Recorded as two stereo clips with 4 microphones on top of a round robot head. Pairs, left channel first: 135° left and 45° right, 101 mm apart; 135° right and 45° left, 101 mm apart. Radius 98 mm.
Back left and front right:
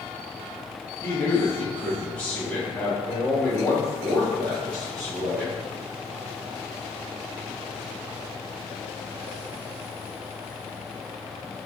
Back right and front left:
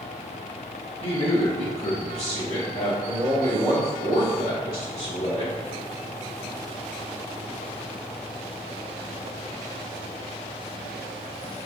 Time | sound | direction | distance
1.0 | a man speaking | 165° right | 1.3 m